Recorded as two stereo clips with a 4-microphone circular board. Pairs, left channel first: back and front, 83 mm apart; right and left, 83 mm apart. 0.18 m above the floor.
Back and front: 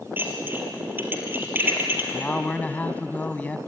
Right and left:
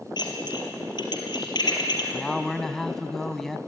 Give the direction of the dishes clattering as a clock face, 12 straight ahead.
2 o'clock.